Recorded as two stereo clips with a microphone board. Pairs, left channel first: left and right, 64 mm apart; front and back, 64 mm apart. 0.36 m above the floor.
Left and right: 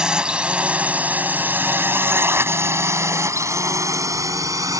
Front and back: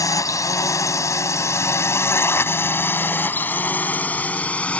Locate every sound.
0.0 s a drone: 15° right; by 4.8 s 70° right